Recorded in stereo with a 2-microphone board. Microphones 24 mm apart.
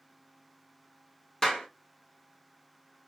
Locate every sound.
1.4 s a clap: 30° left (ahead or behind), 0.9 m